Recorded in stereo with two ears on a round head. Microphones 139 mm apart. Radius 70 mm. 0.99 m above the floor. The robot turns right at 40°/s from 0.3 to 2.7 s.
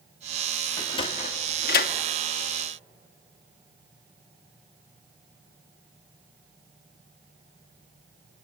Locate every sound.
0.8 s a sliding door: 25° left (ahead or behind), 1.1 m; by 1.9 s 70° left (ahead or behind), 1.1 m